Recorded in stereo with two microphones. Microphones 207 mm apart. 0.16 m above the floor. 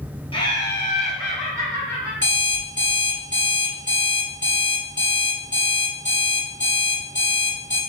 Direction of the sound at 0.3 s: 25° left (ahead or behind).